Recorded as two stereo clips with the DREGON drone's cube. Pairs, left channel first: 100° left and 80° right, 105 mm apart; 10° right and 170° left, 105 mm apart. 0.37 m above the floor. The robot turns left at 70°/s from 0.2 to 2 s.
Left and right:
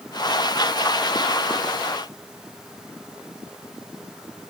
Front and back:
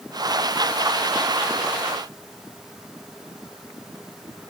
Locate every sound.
Only background noise.